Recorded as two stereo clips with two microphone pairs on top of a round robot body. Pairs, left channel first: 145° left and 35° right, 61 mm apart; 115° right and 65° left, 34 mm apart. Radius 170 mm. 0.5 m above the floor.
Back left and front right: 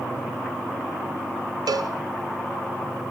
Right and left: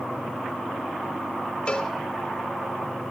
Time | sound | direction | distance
1.7 | a cowbell | 50° right | 1.1 m